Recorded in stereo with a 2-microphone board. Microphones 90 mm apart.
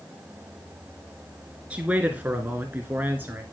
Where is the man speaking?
15° right (ahead or behind), 1.7 m; by 3.4 s 20° right (ahead or behind), 1.7 m.